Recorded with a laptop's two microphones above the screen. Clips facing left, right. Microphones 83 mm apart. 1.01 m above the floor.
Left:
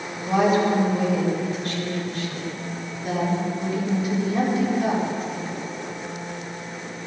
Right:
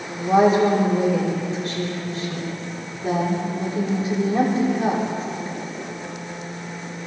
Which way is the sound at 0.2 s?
35° right (ahead or behind).